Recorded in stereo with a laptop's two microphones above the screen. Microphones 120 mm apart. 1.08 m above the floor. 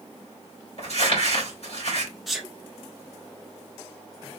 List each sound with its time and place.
0.8 s crumpling: 65° left (ahead or behind), 2 m
2.3 s a sneeze: centre (ahead or behind), 1.2 m